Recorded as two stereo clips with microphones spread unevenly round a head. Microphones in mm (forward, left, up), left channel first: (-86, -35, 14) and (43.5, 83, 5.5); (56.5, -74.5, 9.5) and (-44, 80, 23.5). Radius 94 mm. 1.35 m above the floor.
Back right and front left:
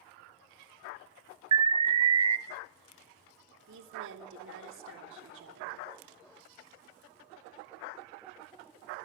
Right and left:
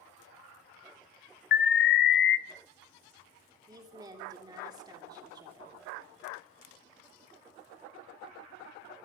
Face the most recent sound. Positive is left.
turn(degrees=50)